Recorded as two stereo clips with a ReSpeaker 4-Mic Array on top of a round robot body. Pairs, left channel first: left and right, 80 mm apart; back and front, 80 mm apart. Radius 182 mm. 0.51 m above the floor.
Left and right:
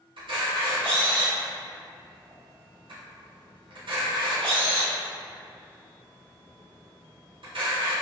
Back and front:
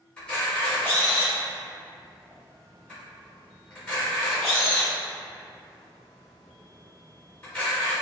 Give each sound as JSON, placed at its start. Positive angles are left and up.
{"t": 0.2, "sound": "a camera shutter", "azimuth_deg": -105, "distance_m": 0.8}